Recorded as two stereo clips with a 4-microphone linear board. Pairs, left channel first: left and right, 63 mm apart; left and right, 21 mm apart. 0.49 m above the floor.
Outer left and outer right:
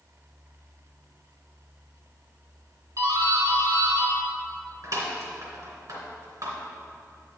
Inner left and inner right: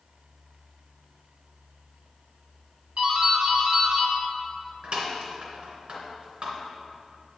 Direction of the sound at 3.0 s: 60° right (ahead or behind).